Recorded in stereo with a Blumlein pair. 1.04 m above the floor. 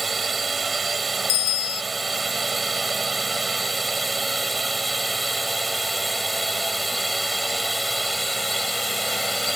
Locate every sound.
0.0 s a drone: 15° right; by 9.6 s straight ahead
1.3 s a bicycle bell: 45° left